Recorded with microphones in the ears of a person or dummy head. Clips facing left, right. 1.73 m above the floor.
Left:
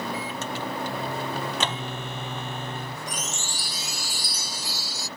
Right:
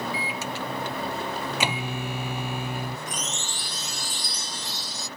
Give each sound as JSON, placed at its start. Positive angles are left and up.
{"t": 0.1, "sound": "a microwave", "side_deg": -10}
{"t": 3.1, "sound": "a chime", "side_deg": 10}